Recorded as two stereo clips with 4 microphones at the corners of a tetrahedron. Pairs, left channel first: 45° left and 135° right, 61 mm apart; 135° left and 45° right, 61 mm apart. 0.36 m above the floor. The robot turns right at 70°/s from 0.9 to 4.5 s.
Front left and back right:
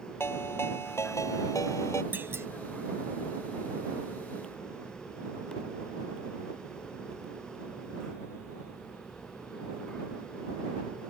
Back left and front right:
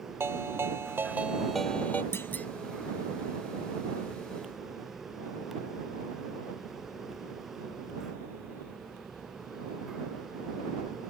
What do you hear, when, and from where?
0.2 s a ringtone: straight ahead; by 2.0 s 80° left
2.1 s a clunk: 175° left; by 2.5 s 165° right